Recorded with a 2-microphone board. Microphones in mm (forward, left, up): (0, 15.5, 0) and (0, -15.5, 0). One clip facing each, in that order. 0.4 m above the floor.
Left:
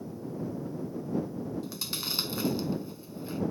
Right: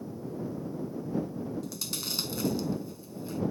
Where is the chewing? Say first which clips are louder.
Left 1 dB; 25° left (ahead or behind).